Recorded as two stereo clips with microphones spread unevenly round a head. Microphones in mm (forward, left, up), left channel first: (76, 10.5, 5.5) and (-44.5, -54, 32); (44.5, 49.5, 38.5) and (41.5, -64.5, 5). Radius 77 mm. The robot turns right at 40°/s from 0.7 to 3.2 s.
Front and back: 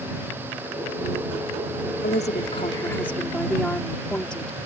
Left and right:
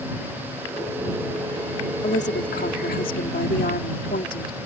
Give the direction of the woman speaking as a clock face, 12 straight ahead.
10 o'clock.